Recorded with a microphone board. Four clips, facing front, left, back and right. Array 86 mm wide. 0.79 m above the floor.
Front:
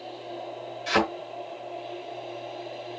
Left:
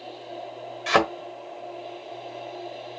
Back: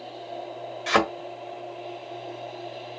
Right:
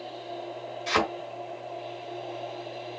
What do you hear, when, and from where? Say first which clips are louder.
0.9 s a thud: left 5 dB, back 2 dB; 115° left, 1.2 m